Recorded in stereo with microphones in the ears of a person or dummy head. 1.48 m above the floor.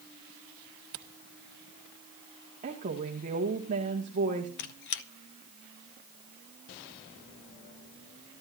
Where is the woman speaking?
40° right (ahead or behind), 1.9 m.